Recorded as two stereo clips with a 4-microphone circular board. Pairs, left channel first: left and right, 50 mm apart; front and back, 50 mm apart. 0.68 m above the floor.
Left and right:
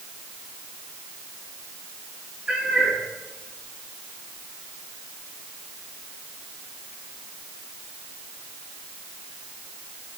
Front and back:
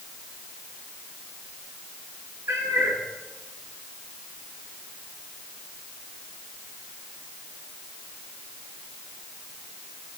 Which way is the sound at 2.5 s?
160° right.